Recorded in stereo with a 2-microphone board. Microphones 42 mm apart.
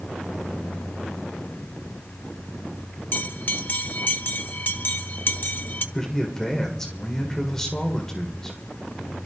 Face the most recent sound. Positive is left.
turn(degrees=10)  # may be behind; listen again after turning